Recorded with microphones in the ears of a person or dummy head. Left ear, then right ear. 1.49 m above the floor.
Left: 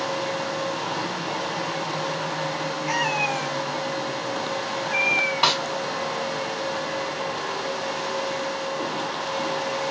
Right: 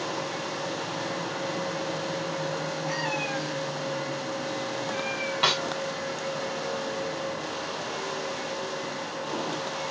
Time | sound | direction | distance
2.9 | a cat meowing | 55° left (ahead or behind) | 2 m
5.4 | a snare drum | 15° left (ahead or behind) | 1.9 m